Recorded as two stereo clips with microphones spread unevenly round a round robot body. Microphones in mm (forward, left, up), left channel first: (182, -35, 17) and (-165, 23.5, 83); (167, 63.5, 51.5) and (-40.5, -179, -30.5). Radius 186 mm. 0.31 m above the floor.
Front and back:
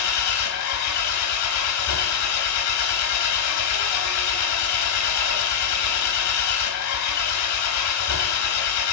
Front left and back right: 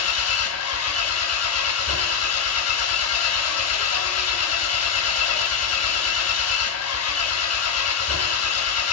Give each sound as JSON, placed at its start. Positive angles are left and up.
{"t": 0.0, "sound": "an engine running", "azimuth_deg": 0, "distance_m": 2.0}